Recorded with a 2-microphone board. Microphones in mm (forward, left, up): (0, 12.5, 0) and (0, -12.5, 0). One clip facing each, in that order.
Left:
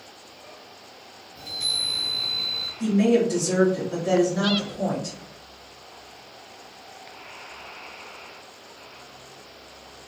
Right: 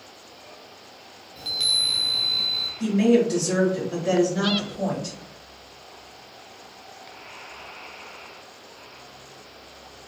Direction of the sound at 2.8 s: 15° right (ahead or behind).